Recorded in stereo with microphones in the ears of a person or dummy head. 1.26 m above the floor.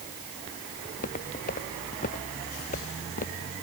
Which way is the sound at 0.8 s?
40° left (ahead or behind).